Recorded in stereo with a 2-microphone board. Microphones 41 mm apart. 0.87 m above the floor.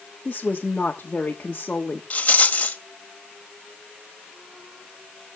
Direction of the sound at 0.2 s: 35° left (ahead or behind).